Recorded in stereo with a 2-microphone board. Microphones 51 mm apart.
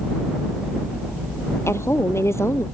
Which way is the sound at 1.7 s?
65° left (ahead or behind).